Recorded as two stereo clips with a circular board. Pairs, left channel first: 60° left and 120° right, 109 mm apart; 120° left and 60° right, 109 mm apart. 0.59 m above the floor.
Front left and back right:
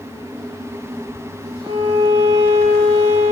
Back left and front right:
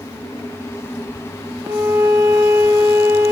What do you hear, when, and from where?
1.6 s a violin: 115° right, 6 m